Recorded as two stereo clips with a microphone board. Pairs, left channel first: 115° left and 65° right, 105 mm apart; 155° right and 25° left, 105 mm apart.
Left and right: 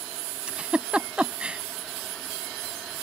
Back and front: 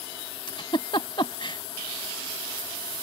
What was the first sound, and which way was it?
A giggle, 145° right.